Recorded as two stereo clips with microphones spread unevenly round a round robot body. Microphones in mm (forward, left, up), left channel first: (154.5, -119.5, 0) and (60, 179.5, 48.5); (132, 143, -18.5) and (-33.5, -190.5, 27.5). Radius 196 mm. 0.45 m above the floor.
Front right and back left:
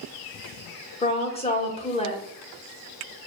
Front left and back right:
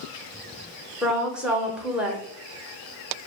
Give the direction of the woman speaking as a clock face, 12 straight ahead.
1 o'clock.